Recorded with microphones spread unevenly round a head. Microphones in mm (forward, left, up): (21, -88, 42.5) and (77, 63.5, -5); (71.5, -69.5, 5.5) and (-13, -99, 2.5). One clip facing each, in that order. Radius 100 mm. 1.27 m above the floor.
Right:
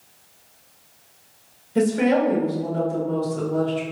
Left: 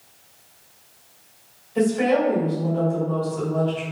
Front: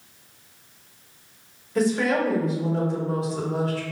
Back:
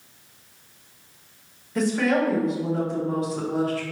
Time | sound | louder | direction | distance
1.8 | a woman speaking | right 1 dB, even | 70° right | 1.3 m